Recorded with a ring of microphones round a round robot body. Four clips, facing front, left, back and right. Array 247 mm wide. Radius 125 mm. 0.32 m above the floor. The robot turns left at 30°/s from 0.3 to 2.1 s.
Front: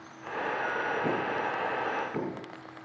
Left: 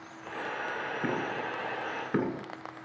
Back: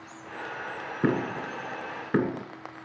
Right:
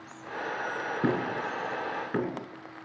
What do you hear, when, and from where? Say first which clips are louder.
1.0 s knocking: right 4 dB, back 2 dB; 165° right, 3 m; by 2.5 s 165° left, 3 m